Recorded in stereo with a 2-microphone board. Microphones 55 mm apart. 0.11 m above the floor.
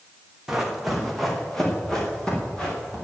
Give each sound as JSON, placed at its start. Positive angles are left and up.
{"t": 0.5, "sound": "running footsteps", "side_deg": -10, "distance_m": 3.0}